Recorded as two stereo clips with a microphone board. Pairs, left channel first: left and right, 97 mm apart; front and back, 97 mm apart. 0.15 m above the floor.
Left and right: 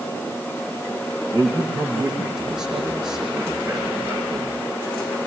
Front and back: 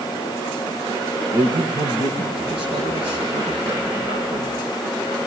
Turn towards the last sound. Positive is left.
turn(degrees=-170)